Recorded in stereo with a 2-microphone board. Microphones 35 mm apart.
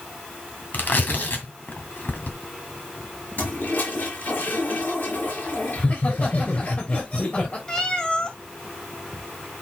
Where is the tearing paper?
60° left (ahead or behind), 2 m.